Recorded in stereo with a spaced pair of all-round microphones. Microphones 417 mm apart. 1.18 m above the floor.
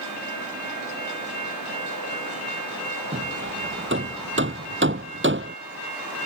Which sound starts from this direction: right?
Hammering, at 3.1 s.